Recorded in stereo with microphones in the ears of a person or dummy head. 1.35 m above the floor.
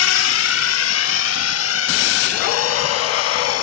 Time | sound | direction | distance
0.0 | a drone | 85° left | ?